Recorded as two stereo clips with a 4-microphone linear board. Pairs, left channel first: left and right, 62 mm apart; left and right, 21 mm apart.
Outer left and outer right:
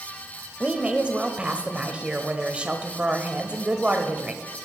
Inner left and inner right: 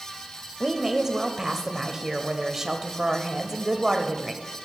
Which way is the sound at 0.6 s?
20° right (ahead or behind).